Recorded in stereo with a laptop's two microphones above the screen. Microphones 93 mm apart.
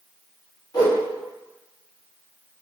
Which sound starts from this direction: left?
A whoosh, at 0.7 s.